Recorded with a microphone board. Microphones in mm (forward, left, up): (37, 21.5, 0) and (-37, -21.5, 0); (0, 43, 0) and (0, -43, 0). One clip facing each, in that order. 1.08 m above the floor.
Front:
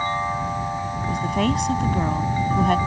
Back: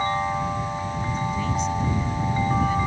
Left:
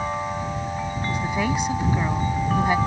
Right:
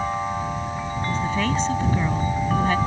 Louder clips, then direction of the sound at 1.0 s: Front 7 dB, right 1 dB; 15° left.